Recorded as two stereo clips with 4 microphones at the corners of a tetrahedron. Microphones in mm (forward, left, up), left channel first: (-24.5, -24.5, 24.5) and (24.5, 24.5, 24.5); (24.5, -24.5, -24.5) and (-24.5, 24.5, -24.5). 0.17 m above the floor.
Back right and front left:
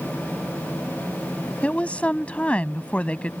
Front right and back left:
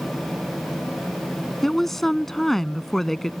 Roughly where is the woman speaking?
Behind right.